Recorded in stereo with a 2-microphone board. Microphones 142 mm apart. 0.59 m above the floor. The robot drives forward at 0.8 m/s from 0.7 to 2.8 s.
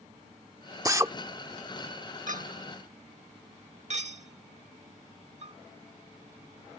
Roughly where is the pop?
No pop in this recording.